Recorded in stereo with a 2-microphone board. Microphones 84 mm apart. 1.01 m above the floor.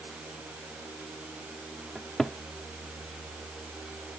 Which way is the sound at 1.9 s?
5° left (ahead or behind).